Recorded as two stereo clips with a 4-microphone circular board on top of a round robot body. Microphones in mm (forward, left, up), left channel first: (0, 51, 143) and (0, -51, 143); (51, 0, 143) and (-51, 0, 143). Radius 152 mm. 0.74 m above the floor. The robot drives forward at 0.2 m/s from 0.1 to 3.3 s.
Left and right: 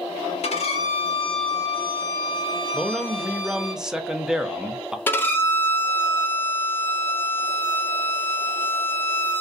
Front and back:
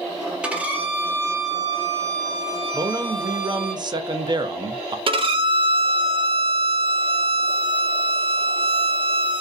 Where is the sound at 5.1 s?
160° left, 0.7 m.